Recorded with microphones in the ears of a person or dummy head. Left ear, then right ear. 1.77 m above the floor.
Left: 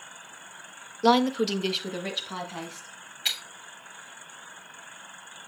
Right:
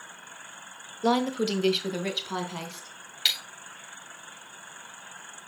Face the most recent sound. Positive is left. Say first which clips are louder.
# right 3 dB
turn(degrees=-50)  # may be behind; listen again after turning